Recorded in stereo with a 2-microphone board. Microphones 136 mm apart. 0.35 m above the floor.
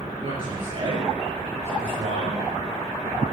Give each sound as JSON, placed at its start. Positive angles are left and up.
{"t": 0.2, "sound": "a man speaking", "side_deg": -40, "distance_m": 6.0}